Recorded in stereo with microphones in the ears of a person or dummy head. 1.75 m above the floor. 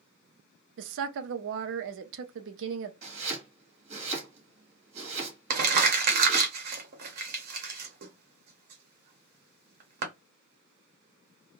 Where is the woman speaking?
65° right (ahead or behind), 0.5 m.